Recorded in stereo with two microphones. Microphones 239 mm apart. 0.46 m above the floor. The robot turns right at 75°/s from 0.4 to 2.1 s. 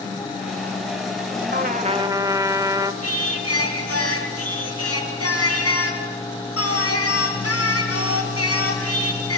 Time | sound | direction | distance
1.5 | a trumpet | 60° right | 1.0 m
3.0 | singing | 70° left (ahead or behind) | 4.5 m